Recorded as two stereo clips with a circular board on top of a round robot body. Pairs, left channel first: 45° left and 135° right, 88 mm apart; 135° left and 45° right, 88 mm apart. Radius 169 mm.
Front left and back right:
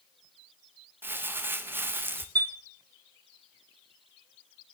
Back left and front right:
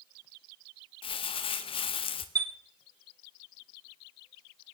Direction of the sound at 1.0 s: 155° left.